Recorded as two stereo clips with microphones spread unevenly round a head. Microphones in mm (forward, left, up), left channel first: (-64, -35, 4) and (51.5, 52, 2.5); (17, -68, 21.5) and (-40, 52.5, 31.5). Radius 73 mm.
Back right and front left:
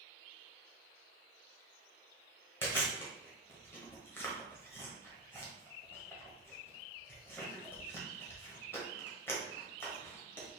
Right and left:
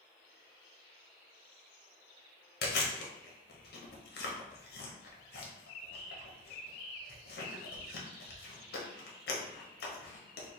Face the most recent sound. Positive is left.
turn(degrees=-65)